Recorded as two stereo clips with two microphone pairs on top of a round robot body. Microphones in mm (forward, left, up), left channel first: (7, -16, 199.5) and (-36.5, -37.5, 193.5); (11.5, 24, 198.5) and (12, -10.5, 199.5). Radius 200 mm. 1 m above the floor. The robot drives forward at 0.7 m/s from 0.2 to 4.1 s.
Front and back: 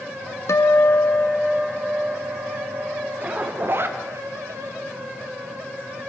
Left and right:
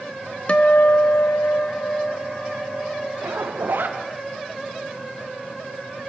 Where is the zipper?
95° right, 0.9 m; by 4.0 s 125° right, 1.1 m.